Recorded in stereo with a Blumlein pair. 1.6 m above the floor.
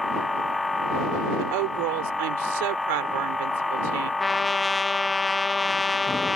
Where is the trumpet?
10° left.